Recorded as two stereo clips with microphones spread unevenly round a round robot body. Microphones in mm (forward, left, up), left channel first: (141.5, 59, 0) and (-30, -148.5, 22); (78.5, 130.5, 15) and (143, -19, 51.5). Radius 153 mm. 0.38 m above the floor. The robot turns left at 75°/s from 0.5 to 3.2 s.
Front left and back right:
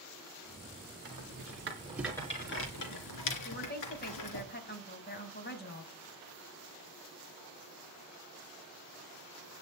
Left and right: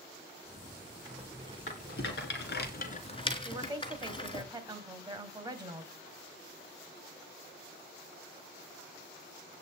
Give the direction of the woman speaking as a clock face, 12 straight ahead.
12 o'clock.